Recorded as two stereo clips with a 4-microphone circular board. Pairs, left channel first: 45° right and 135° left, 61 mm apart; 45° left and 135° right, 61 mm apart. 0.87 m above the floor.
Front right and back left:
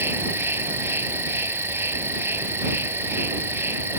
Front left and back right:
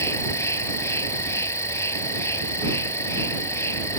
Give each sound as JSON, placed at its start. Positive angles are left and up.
{"t": 0.0, "sound": "an insect", "azimuth_deg": 85}